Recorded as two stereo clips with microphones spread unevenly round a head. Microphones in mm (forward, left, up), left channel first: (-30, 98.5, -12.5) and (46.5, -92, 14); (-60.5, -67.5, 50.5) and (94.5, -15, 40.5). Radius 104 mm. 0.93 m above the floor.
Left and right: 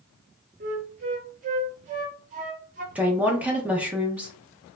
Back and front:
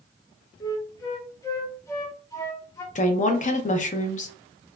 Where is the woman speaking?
160° right, 0.6 m.